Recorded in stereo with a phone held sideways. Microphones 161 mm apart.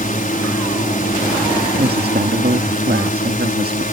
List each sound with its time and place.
0.0 s a drone: 55° left (ahead or behind)
1.8 s a woman speaking: 75° right (ahead or behind)